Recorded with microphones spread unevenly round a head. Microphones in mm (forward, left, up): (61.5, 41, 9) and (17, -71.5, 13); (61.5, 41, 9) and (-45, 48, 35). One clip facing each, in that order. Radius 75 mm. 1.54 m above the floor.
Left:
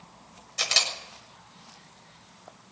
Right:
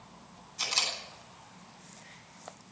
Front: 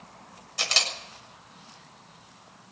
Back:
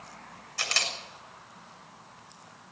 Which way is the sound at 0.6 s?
65° left.